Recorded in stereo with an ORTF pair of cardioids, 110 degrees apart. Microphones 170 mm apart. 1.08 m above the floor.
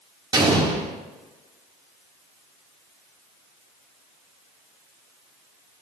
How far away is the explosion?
About 2 m.